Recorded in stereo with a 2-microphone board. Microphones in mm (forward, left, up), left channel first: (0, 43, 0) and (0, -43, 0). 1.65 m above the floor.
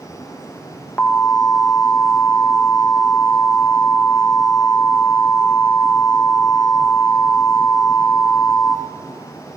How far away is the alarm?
About 1.1 m.